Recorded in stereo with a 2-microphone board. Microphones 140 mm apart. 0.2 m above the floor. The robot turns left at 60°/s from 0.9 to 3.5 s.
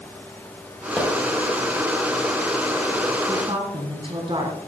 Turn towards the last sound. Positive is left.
turn(degrees=-35)  # may be behind; listen again after turning